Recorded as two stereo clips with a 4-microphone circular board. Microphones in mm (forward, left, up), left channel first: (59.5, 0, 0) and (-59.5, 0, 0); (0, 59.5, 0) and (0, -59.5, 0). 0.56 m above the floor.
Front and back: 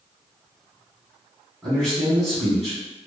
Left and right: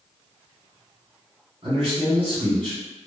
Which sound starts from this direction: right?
A man speaking, at 1.6 s.